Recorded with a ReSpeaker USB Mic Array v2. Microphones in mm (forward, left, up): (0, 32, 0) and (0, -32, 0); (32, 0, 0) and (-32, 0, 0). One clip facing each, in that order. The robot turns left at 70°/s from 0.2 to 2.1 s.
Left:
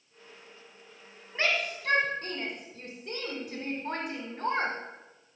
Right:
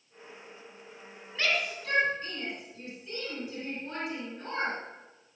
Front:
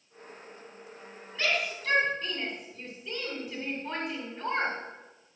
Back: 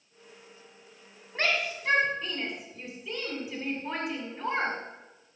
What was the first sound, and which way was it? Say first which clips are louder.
A shout: left 1 dB, back 1 dB; 145° left.